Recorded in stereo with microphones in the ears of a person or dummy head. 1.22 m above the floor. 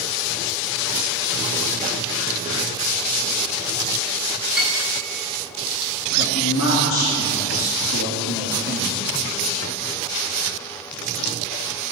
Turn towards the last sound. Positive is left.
turn(degrees=70)  # may be behind; listen again after turning